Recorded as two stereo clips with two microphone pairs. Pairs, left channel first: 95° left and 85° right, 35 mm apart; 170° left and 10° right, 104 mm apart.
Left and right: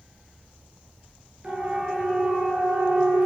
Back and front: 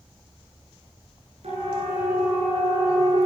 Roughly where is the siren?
Ahead.